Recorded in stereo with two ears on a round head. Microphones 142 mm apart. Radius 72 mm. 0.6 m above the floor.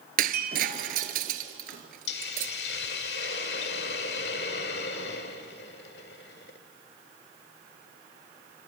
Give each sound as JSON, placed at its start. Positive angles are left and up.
{"t": 0.2, "sound": "breaking glass", "side_deg": -55, "distance_m": 1.6}
{"t": 2.1, "sound": "a hiss", "side_deg": 70, "distance_m": 1.8}